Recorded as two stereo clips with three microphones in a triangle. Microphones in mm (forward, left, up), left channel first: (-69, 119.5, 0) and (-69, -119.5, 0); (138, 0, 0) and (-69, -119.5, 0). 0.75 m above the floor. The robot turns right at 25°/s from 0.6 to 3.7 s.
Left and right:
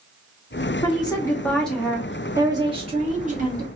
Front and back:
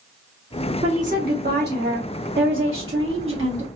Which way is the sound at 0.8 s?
155° left.